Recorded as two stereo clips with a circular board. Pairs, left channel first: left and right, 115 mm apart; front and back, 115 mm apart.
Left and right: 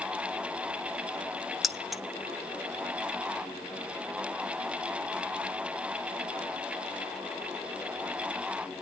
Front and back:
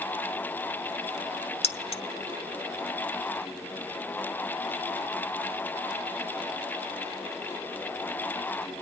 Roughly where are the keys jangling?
Ahead.